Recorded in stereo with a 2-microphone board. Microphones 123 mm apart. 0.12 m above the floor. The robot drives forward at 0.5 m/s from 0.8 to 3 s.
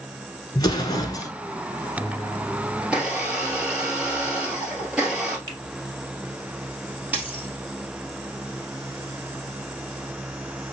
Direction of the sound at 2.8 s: 10° right (ahead or behind).